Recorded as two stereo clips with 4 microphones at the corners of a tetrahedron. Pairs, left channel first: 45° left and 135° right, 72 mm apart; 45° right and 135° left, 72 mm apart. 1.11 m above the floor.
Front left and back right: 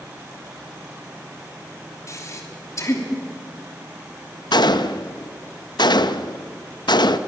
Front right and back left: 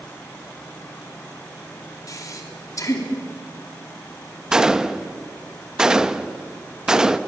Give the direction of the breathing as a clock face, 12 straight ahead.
12 o'clock.